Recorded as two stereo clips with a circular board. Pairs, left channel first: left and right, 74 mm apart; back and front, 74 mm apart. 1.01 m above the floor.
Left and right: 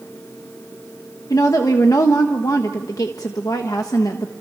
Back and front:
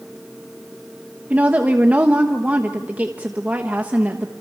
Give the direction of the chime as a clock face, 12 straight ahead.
I don't hear a chime.